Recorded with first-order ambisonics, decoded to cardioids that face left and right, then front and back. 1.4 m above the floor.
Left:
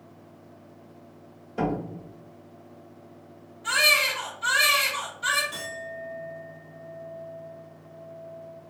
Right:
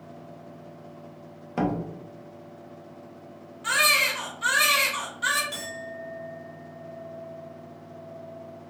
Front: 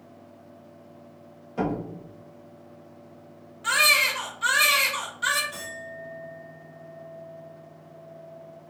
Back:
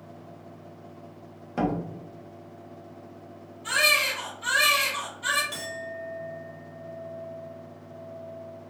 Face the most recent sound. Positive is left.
turn(degrees=-145)